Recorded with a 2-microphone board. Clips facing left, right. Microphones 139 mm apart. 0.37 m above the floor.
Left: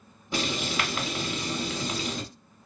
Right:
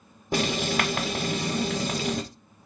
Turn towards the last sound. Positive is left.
turn(degrees=-50)  # may be behind; listen again after turning